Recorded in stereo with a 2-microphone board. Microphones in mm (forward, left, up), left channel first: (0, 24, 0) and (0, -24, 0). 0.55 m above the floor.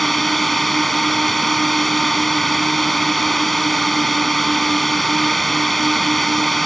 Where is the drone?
Centre (ahead or behind).